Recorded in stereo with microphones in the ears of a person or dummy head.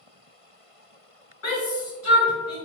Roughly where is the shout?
Left.